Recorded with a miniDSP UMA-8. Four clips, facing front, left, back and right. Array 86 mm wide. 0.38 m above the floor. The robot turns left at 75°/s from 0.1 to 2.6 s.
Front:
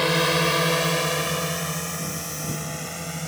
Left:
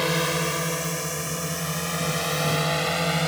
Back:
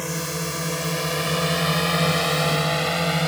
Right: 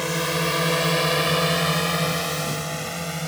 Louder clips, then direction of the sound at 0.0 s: Even, front 7 dB; 15° left.